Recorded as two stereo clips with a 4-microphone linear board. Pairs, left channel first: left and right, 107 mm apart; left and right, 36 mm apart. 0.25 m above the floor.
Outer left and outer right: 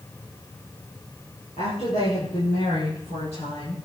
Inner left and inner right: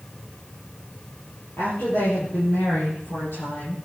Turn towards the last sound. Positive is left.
turn(degrees=80)